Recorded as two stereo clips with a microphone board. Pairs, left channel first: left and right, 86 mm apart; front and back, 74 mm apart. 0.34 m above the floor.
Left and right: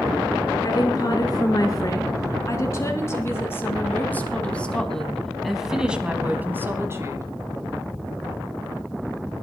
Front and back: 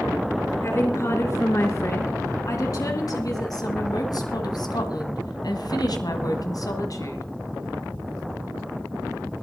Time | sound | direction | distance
0.6 | a woman speaking | 45° left | 4.5 m